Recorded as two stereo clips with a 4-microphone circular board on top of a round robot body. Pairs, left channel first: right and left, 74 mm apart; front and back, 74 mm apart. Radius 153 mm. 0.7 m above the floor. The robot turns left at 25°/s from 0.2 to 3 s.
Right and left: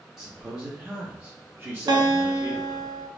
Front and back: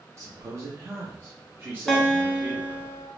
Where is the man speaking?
170° left, 0.8 m; by 2.8 s 105° left, 0.8 m.